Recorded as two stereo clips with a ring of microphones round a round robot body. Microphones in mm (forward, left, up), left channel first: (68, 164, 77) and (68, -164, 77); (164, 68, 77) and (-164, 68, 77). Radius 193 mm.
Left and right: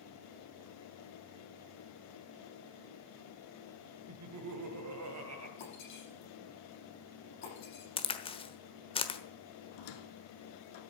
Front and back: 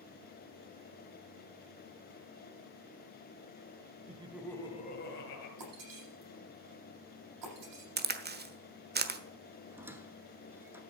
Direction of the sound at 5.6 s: 150° left.